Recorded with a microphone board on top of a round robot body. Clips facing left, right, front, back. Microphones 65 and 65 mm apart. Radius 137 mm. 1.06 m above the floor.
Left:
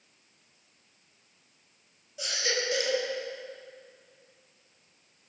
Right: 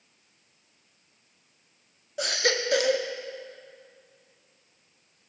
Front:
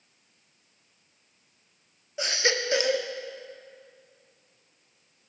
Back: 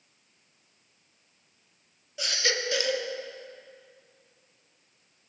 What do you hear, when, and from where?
2.2 s a baby crying: 60° right, 1.8 m